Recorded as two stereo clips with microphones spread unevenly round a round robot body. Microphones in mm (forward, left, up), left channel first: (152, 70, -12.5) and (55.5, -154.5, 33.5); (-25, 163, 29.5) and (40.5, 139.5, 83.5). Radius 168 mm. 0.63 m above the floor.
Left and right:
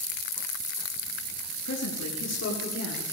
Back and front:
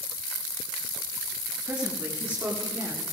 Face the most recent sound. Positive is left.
turn(degrees=35)